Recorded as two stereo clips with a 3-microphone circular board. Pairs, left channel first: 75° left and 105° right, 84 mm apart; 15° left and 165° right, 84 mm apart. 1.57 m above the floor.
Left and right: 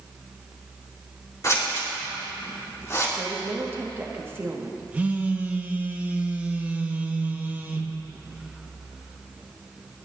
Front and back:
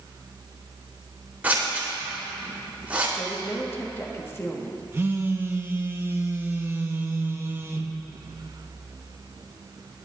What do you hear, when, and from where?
1.4 s scissors: 125° left, 3 m
3.2 s a woman speaking: 45° right, 1.5 m
4.9 s a phone buzzing: 150° right, 0.9 m